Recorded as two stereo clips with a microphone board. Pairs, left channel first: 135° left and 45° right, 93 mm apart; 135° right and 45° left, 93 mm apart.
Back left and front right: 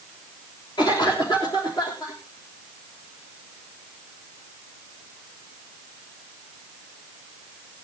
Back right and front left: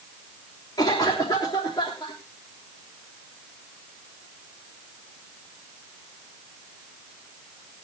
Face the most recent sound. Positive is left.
turn(degrees=175)